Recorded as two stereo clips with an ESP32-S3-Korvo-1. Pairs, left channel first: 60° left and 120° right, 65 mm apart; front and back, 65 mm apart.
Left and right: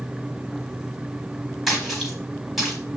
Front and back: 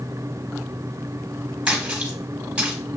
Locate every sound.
1.7 s a splash: 155° left, 1.6 m